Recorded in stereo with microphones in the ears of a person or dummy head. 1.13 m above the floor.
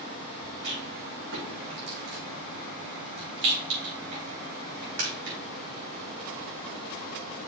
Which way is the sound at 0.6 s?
80° right.